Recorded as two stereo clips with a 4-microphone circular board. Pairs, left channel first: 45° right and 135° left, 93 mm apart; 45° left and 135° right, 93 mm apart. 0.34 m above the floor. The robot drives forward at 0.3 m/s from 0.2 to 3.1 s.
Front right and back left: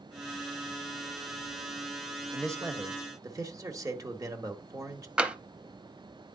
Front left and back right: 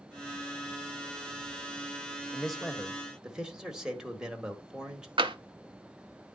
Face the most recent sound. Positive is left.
turn(degrees=-150)